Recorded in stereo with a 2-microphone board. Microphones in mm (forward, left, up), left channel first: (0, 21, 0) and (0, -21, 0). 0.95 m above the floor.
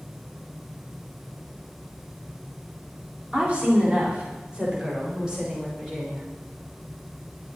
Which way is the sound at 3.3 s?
35° right (ahead or behind).